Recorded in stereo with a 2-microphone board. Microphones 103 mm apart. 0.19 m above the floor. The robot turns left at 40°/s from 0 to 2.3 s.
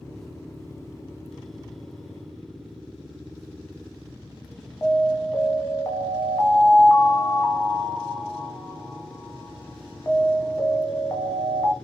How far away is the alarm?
About 0.9 m.